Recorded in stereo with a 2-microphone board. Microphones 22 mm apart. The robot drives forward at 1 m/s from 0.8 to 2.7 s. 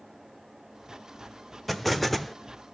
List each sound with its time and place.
1.7 s an explosion: 5° left (ahead or behind), 1.3 m